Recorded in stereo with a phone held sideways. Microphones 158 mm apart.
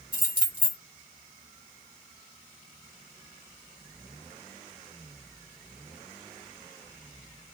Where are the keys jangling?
30° right (ahead or behind), 1.3 m.